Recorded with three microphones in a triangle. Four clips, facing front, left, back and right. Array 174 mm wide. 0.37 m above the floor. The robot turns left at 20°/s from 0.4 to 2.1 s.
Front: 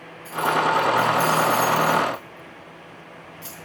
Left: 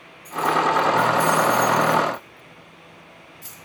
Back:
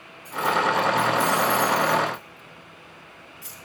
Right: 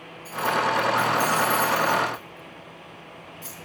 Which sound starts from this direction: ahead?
Keys jangling, at 0.2 s.